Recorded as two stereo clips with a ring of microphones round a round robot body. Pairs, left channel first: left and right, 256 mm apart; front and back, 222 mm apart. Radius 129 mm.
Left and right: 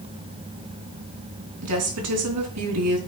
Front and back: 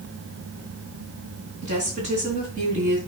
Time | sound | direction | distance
1.6 | a woman speaking | 120° right | 3.5 m